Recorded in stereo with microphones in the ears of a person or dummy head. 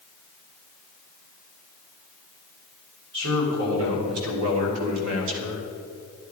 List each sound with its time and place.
3.1 s a man speaking: 75° right (ahead or behind), 4 m; by 5.7 s 65° right (ahead or behind), 1.8 m